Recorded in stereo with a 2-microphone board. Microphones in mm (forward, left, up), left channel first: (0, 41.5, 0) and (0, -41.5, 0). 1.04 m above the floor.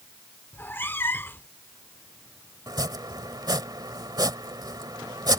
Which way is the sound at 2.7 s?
55° right (ahead or behind).